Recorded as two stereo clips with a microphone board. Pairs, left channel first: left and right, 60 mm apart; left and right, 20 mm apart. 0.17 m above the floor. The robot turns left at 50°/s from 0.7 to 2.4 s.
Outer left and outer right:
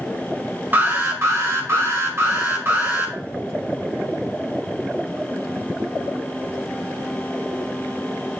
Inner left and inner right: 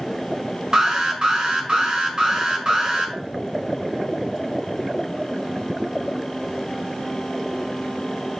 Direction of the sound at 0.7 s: 45° right.